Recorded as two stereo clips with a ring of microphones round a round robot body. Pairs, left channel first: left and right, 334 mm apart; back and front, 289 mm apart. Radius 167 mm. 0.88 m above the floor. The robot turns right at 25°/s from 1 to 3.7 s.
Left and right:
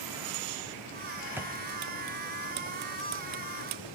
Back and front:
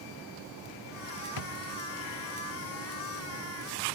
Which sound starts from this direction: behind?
A drawer, at 1.4 s.